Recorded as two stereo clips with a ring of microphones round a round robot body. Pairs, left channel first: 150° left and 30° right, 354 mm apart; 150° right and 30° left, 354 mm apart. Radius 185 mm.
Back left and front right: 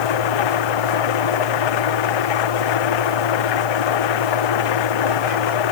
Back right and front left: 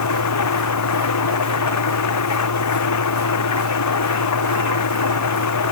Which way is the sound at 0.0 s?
165° left.